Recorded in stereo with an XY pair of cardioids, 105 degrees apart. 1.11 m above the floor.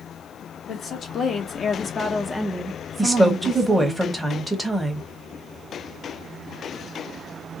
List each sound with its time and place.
0.7 s a woman speaking: 55° left, 1.2 m; by 4.0 s 60° right, 0.9 m
3.0 s a woman speaking: 10° right, 0.9 m